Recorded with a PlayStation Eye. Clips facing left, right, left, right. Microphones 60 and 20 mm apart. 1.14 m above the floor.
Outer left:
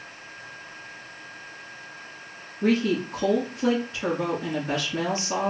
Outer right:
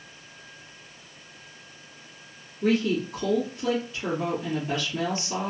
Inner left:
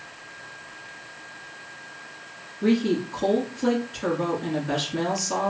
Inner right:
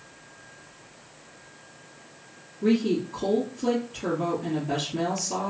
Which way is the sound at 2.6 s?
70° left (ahead or behind).